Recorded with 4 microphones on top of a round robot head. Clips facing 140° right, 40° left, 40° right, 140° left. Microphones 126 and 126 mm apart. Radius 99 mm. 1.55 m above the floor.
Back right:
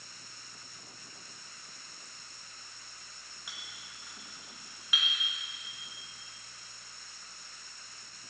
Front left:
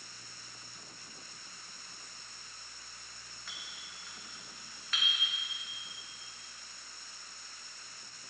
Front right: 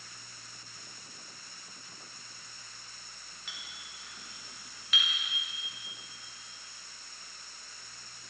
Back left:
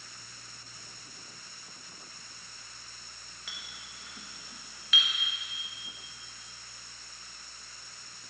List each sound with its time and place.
3.5 s a clink: 140° left, 1.6 m